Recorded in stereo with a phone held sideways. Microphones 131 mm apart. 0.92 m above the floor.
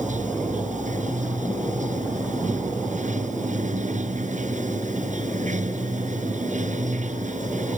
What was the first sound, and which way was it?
Running water, 70° right (ahead or behind).